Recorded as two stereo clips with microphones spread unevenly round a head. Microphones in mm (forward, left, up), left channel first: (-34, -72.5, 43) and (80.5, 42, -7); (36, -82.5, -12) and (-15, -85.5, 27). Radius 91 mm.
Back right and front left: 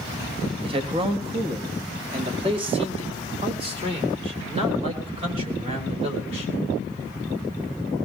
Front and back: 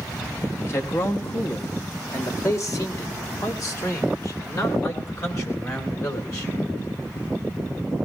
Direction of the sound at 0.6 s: 10° right.